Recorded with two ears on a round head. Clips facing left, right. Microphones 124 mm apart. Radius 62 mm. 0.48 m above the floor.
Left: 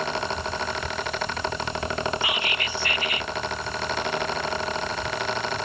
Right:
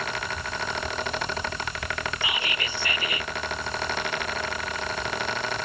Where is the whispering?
80° right.